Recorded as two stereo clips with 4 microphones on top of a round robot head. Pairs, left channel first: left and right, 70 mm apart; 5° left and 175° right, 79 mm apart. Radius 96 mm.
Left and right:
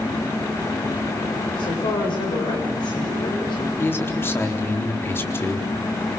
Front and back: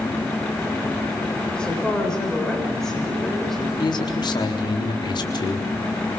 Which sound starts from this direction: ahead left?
A man speaking, at 3.8 s.